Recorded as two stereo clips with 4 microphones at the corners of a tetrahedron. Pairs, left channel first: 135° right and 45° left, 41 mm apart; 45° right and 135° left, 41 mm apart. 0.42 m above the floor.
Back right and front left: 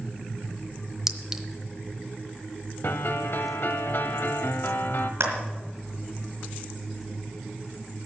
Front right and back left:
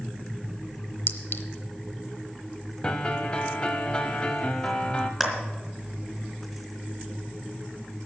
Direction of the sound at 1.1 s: 35° right.